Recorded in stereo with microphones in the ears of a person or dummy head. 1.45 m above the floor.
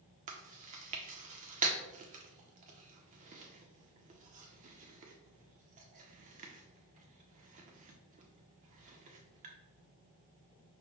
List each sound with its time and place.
0.3 s chewing: 35° right (ahead or behind), 0.6 m